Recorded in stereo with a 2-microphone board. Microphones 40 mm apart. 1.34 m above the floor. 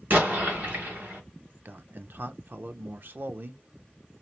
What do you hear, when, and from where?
0.1 s an explosion: 50° right (ahead or behind), 1.7 m
1.6 s a man speaking: 55° right (ahead or behind), 0.6 m